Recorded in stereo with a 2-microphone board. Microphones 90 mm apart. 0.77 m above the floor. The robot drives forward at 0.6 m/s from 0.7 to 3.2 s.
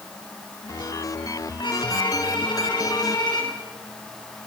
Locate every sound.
1.6 s a violin: 55° left (ahead or behind), 8 m; by 3.5 s 50° left (ahead or behind), 8.5 m